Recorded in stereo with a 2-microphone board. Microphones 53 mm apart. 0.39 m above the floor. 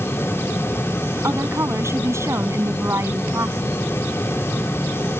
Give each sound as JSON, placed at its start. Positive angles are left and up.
{"t": 1.2, "sound": "a woman speaking", "side_deg": -65}